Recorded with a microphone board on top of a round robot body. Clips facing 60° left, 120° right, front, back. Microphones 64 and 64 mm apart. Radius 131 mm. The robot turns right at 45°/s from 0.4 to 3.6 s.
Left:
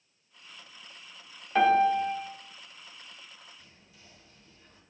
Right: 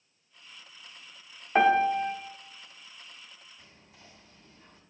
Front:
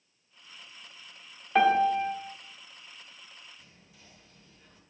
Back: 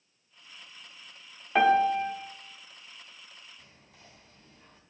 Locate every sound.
1.6 s a piano: 100° right, 0.9 m; by 2.1 s 75° right, 0.9 m
3.6 s whispering: 155° right, 1.8 m